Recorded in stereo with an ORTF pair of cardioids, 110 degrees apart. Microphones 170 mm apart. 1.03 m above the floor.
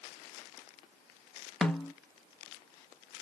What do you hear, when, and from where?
1.6 s a snare drum: 5° left, 0.7 m